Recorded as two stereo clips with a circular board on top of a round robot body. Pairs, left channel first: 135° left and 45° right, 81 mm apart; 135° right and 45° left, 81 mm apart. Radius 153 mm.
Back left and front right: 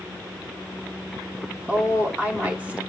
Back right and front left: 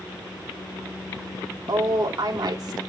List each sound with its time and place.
1.7 s a woman speaking: 25° left, 2.5 m